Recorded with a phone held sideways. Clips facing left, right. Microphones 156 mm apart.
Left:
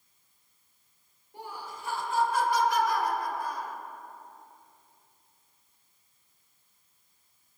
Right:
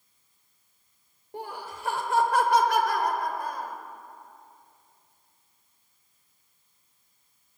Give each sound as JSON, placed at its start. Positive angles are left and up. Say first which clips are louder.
{"t": 1.3, "sound": "laughter", "louder": "right 4 dB", "side_deg": -80, "distance_m": 3.0}